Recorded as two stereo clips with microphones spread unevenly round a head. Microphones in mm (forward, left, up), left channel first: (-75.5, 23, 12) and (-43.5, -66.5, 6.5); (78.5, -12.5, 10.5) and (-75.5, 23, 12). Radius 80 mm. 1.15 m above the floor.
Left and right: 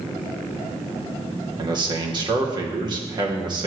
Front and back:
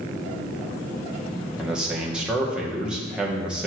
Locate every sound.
1.6 s a man speaking: 110° right, 1.0 m